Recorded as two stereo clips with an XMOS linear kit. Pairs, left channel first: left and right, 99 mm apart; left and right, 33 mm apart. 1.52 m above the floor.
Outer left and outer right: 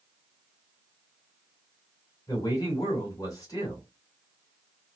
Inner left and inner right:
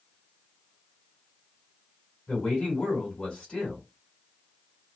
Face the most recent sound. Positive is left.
turn(degrees=35)  # may be behind; listen again after turning